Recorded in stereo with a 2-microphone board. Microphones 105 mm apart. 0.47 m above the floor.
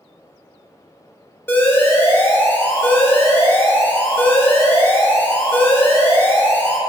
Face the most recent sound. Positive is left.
turn(degrees=20)  # may be behind; listen again after turning